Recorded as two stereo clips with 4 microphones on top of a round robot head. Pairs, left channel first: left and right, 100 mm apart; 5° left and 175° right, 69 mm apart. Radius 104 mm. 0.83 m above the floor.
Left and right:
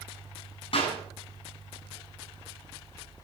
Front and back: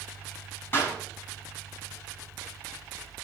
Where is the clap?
65° left, 9 m.